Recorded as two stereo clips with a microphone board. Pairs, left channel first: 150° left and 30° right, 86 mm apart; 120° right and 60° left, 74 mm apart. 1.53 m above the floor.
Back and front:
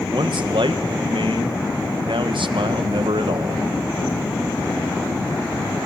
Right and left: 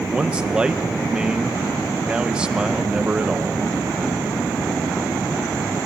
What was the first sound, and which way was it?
A man speaking, 15° right.